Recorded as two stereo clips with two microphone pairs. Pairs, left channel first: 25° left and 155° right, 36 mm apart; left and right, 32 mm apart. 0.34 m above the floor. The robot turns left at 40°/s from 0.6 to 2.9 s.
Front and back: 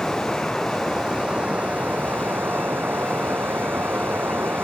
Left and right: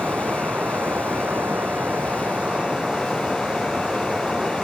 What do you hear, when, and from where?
0.0 s running water: 65° right; by 4.6 s 160° right